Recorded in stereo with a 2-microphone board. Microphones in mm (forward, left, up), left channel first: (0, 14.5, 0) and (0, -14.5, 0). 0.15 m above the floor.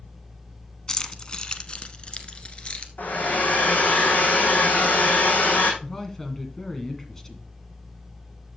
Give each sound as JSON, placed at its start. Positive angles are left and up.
{"t": 0.9, "sound": "keys jangling", "side_deg": 20, "distance_m": 0.7}
{"t": 3.0, "sound": "a hair dryer", "side_deg": 70, "distance_m": 2.5}
{"t": 5.8, "sound": "a man speaking", "side_deg": 15, "distance_m": 1.7}